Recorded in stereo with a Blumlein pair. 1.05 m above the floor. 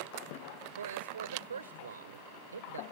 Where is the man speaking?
70° right.